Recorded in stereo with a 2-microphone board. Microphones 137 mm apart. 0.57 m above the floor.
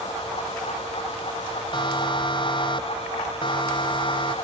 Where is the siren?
35° left (ahead or behind).